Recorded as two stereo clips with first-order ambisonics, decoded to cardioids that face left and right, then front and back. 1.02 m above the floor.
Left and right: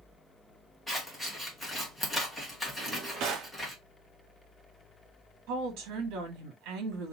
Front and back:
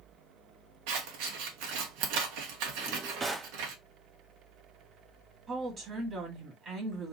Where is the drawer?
120° right, 1.0 m.